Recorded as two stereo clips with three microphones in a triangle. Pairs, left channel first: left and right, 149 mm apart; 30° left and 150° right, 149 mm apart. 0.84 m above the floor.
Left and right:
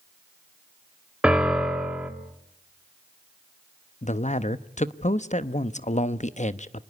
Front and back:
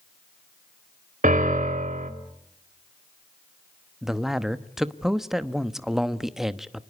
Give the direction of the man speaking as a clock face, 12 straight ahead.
8 o'clock.